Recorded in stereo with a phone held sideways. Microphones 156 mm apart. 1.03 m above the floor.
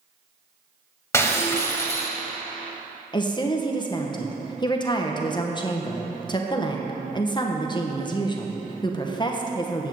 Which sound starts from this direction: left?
A woman speaking, at 3.1 s.